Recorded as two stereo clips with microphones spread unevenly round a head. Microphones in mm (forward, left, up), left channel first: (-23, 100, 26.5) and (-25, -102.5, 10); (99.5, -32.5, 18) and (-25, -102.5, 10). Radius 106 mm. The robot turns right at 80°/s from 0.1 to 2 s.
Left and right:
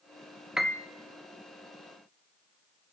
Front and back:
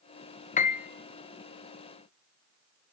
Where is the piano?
5° right, 0.7 m; by 0.9 s 20° left, 0.7 m.